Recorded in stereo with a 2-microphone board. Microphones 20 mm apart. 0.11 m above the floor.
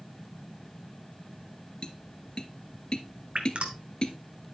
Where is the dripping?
65° right (ahead or behind), 1.2 m.